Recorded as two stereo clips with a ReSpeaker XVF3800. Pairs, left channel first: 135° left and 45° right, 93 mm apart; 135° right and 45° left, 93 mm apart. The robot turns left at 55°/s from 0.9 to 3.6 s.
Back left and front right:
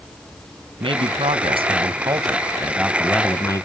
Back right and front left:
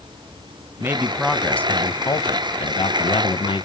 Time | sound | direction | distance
0.8 | a man speaking | 20° right | 0.9 m